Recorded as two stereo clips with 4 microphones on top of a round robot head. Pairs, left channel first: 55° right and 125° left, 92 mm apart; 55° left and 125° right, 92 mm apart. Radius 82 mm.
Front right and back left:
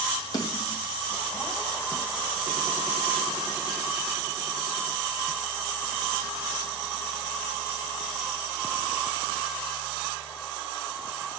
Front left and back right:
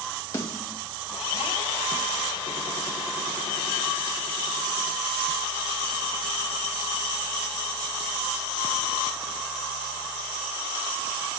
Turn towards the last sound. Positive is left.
turn(degrees=0)